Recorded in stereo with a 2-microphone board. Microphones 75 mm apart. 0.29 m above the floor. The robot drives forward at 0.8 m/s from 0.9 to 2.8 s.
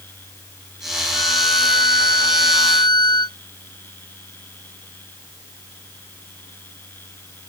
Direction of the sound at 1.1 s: 80° left.